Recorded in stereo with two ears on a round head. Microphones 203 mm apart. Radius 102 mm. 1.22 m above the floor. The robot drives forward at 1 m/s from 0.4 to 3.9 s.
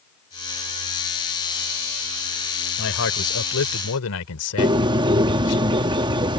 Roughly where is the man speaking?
Left.